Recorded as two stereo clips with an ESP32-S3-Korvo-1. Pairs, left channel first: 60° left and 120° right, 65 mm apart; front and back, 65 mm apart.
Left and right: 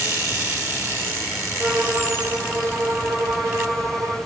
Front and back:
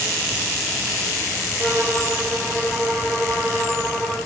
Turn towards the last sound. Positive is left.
turn(degrees=-85)